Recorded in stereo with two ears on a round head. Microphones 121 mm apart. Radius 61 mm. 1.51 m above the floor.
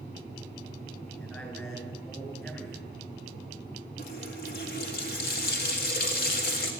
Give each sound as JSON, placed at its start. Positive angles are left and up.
{"t": 1.2, "sound": "a man speaking", "side_deg": 15, "distance_m": 9.0}
{"t": 4.0, "sound": "a running tap", "side_deg": 80, "distance_m": 3.0}